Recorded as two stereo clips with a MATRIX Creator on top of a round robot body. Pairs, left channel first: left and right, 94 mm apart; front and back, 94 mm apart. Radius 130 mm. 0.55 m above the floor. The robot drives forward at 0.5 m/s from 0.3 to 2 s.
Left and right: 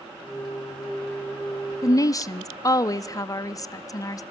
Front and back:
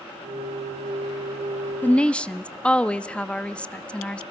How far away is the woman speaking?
About 0.8 m.